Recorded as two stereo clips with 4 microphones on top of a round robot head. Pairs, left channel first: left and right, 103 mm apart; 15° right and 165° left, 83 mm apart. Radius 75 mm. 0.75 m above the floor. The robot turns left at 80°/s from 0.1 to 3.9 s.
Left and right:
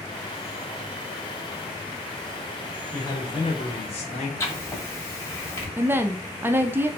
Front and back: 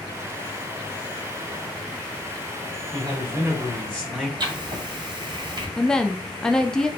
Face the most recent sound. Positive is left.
turn(degrees=-80)